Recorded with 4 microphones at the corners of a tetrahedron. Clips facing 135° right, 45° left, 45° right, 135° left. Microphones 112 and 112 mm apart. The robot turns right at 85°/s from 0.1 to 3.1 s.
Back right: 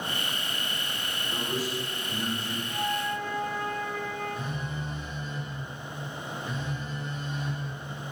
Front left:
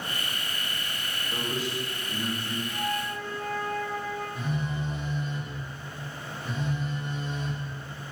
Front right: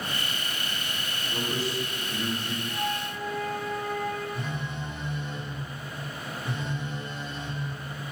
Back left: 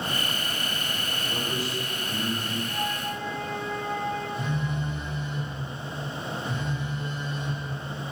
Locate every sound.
1.3 s a man speaking: 120° left, 1.8 m; by 2.6 s 135° right, 1.8 m
2.7 s a flute: 60° right, 1.6 m; by 4.2 s 20° right, 1.6 m
4.3 s a phone buzzing: 15° right, 1.4 m